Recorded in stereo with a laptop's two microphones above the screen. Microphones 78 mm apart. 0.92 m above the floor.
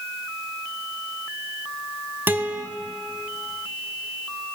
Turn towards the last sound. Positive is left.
turn(degrees=-25)  # may be behind; listen again after turning